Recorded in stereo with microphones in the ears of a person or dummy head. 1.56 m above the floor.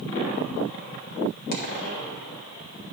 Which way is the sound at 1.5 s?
60° left (ahead or behind).